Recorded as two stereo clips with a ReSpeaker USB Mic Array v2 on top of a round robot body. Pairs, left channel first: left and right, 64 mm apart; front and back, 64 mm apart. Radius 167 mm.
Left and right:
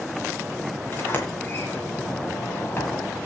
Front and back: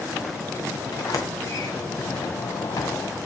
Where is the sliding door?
30° left, 1.7 m.